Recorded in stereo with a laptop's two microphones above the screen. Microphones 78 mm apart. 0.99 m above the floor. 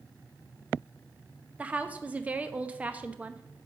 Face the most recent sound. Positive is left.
turn(degrees=-20)  # may be behind; listen again after turning